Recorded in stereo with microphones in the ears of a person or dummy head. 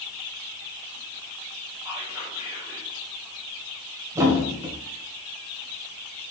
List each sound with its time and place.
1.9 s whispering: 15° right (ahead or behind), 3 m
4.2 s a thud: 20° right (ahead or behind), 2 m